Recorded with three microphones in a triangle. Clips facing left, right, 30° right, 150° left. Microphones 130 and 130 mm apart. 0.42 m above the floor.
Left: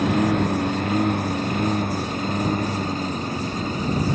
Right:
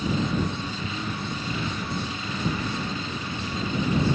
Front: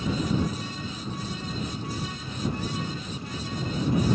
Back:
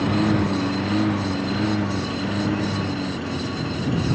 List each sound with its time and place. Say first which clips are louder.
0.0 s a lawn mower: left 6 dB, back 7 dB; 125° left; by 4.1 s 145° left